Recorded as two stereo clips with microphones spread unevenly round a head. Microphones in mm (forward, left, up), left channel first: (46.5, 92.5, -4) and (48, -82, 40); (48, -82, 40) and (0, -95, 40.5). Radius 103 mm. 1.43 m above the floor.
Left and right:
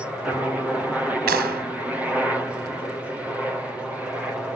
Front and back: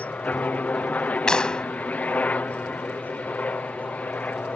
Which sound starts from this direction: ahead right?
A clap, at 1.3 s.